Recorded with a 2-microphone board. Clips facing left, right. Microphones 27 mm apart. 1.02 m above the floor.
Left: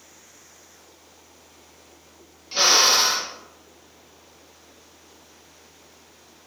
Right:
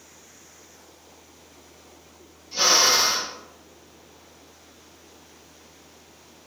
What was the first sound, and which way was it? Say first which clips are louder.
A drill: left 2 dB; 55° left (ahead or behind).